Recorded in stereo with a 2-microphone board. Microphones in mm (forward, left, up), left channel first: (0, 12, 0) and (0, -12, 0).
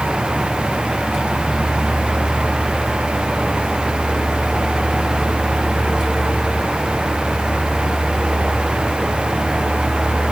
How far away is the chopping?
I don't hear chopping.